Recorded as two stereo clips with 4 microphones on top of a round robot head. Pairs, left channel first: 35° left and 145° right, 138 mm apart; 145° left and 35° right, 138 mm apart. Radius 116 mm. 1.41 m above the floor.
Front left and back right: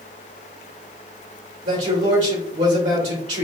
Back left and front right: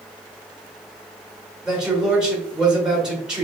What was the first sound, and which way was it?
A man speaking, 115° right.